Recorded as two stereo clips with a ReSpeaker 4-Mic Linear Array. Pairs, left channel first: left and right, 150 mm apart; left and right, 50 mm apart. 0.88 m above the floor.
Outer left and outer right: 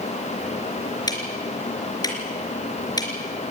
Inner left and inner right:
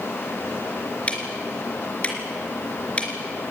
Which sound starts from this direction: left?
Ticking, at 1.1 s.